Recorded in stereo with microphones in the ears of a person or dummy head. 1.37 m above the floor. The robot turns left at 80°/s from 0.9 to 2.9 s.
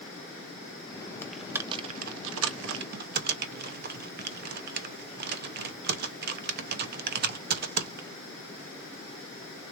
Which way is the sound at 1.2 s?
15° left (ahead or behind).